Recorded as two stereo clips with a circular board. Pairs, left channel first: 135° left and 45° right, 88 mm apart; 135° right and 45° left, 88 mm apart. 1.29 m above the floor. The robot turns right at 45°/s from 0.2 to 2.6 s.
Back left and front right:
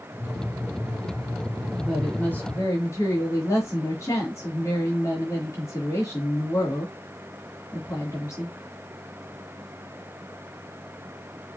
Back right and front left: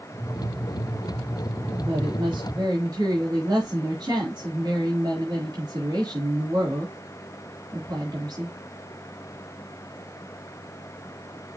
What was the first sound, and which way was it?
A woman speaking, 45° left.